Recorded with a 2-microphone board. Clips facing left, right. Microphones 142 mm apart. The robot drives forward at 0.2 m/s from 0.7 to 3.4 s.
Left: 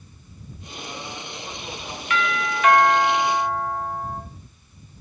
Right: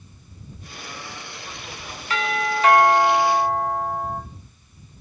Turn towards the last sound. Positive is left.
turn(degrees=-30)  # may be behind; listen again after turning